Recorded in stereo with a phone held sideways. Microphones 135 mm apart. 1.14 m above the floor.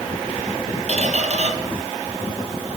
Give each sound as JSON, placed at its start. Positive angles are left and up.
{"t": 0.9, "sound": "a squeak", "side_deg": -55, "distance_m": 2.0}